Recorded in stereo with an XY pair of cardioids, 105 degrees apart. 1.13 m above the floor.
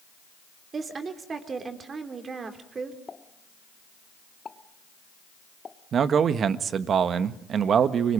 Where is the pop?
30° left, 1.3 m.